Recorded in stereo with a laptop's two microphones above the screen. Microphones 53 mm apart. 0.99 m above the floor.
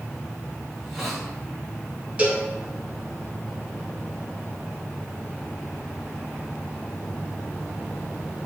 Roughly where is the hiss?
Centre.